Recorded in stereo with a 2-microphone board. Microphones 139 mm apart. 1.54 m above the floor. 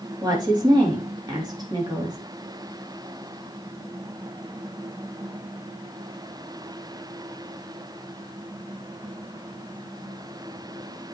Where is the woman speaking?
30° right (ahead or behind), 3.5 m.